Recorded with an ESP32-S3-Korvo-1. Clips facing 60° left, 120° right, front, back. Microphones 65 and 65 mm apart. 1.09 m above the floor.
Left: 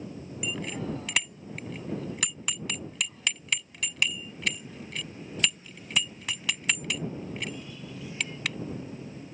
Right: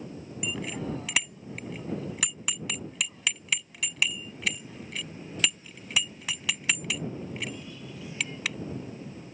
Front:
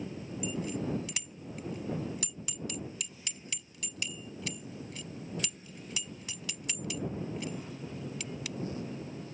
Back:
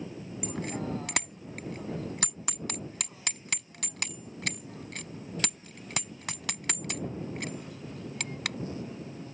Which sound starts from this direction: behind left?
A bicycle bell, at 0.4 s.